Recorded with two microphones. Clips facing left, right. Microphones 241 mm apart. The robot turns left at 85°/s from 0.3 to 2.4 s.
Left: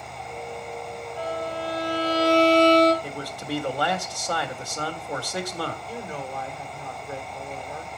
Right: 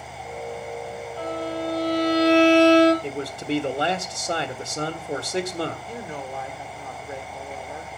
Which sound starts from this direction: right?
A man speaking, at 3.0 s.